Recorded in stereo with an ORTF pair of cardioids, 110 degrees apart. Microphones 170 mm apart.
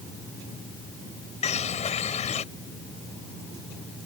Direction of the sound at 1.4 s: 40° left.